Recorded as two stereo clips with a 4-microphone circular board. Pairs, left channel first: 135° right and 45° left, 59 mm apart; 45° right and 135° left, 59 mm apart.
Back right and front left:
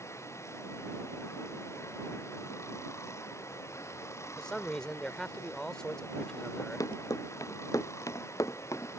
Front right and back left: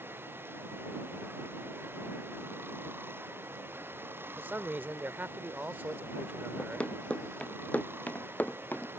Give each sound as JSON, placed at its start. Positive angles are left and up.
{"t": 0.0, "sound": "running water", "azimuth_deg": -175}
{"t": 4.4, "sound": "a man speaking", "azimuth_deg": 160}
{"t": 6.6, "sound": "running footsteps", "azimuth_deg": -115}